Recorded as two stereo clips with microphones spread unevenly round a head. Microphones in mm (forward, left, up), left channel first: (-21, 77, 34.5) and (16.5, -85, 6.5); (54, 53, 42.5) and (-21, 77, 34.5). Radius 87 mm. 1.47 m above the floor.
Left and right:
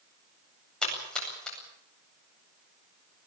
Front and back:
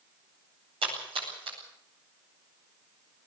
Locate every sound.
0.8 s a splash: 170° right, 8.5 m